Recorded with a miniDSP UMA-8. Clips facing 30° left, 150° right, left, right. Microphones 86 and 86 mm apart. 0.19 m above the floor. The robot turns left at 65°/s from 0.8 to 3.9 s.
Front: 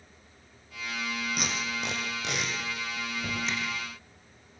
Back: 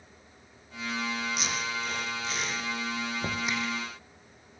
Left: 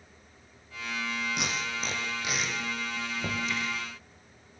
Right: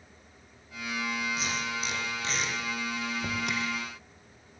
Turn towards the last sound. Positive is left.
turn(degrees=120)